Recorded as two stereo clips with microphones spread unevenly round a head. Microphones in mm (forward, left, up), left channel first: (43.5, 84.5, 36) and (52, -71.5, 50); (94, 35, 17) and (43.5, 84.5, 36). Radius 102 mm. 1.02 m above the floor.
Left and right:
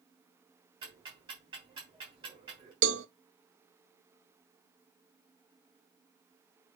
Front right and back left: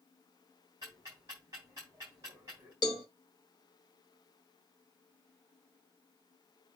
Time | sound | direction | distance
0.8 | ticking | 150° right | 3 m
2.8 | a cowbell | 100° right | 0.6 m